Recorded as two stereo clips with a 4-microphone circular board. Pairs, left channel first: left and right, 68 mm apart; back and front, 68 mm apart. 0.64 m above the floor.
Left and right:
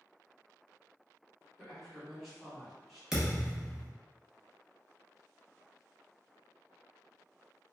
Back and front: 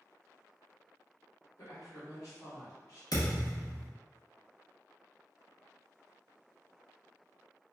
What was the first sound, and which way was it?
A woman speaking, 175° left.